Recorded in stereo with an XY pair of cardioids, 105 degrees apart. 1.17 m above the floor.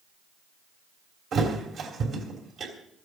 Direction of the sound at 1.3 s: 60° right.